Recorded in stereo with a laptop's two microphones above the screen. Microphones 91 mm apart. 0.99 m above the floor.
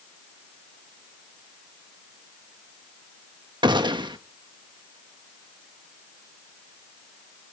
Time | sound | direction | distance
3.6 | a gunshot | 55° right (ahead or behind) | 1.2 m